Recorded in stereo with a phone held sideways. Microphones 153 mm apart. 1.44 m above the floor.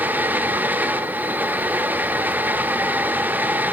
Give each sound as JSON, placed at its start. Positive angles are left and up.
{"t": 0.0, "sound": "a fan", "side_deg": -10, "distance_m": 0.8}